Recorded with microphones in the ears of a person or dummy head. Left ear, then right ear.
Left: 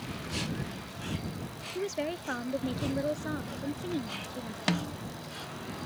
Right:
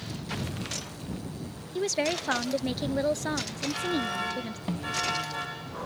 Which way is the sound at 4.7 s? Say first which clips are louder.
Left 3 dB; 65° left (ahead or behind).